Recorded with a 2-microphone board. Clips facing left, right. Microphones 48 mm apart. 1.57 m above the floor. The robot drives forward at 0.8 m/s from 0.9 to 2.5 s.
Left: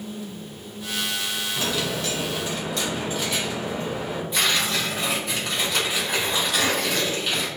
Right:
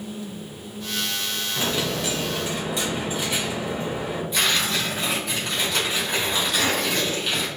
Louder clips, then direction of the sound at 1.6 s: Right 2 dB; 20° right (ahead or behind).